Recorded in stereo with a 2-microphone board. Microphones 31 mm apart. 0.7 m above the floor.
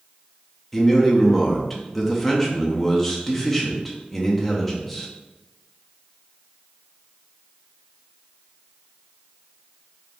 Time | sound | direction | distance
0.7 | a man speaking | 5° left (ahead or behind) | 0.6 m